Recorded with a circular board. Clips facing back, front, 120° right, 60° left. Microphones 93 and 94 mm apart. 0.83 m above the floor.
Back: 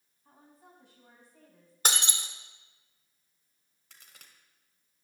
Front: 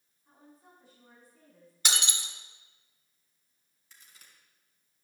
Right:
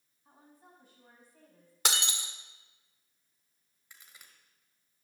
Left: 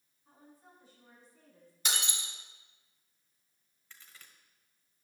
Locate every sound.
0.2 s a woman speaking: 155° right, 6.5 m; by 1.8 s 150° right, 6 m
1.9 s breaking glass: 135° right, 1.4 m
3.9 s a crack: 165° left, 1.9 m